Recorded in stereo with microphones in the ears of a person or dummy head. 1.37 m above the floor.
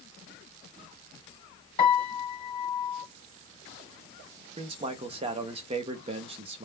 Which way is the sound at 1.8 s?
20° left (ahead or behind).